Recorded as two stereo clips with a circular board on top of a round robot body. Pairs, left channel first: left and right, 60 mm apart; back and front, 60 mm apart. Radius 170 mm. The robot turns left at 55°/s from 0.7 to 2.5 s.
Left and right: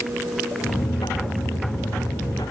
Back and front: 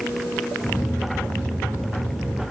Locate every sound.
Only background noise.